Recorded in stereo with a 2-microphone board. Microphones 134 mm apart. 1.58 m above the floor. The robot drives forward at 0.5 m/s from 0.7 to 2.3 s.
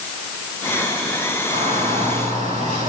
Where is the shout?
55° right (ahead or behind), 9.5 m; by 2.9 s 60° right (ahead or behind), 9 m.